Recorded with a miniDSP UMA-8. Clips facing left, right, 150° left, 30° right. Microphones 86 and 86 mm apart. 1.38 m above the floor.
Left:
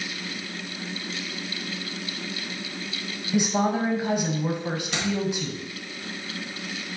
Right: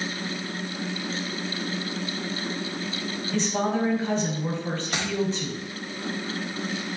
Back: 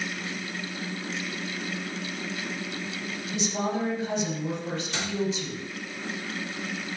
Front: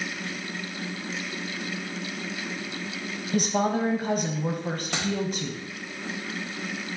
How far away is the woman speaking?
About 0.7 m.